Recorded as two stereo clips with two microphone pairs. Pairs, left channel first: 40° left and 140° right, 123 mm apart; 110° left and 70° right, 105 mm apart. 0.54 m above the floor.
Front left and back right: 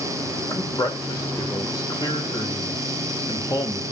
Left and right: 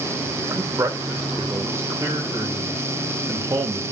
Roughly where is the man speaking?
Ahead.